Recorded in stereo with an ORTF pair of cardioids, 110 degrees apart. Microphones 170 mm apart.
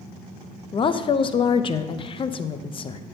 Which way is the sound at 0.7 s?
30° left.